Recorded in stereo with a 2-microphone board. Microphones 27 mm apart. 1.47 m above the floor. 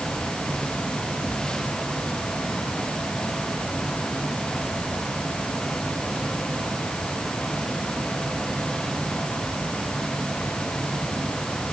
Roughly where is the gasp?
I don't hear a gasp.